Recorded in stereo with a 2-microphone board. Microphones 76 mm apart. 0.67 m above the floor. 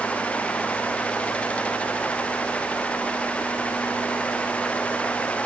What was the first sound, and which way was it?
Only background noise.